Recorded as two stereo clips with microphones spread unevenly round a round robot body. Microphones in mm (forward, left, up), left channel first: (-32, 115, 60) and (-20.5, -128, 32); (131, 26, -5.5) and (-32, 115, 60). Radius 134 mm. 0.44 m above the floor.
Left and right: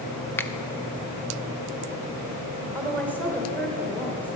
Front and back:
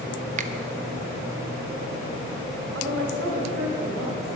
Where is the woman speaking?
Straight behind, 2.0 m.